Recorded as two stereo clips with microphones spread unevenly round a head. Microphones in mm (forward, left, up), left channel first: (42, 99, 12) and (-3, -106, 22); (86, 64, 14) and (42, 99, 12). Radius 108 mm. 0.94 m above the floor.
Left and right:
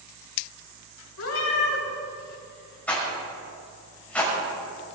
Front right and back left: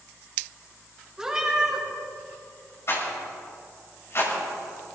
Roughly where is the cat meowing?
Ahead left.